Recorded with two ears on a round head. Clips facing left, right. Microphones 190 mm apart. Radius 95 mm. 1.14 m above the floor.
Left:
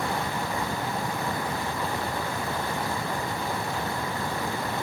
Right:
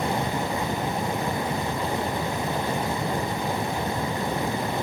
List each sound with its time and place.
Only background noise.